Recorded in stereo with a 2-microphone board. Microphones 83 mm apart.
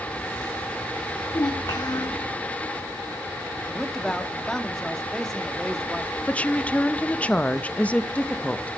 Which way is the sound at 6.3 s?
15° left (ahead or behind).